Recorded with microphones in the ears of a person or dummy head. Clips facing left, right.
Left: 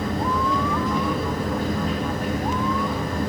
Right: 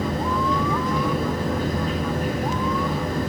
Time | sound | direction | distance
0.0 | a fan | 60° right (ahead or behind) | 5.5 m